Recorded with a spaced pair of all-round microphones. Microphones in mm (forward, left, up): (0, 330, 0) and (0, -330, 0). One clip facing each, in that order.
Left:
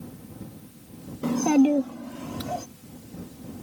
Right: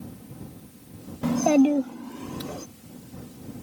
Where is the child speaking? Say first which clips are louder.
Even; 25° right (ahead or behind); by 2.6 s 20° left (ahead or behind).